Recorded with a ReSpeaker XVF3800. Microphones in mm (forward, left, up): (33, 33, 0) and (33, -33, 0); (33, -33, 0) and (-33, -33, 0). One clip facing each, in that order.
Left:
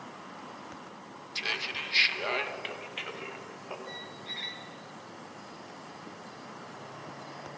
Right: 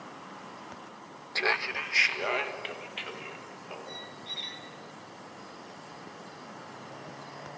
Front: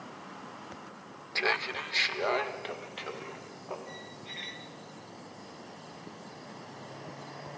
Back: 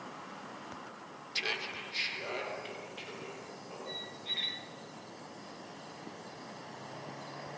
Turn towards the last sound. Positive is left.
turn(degrees=70)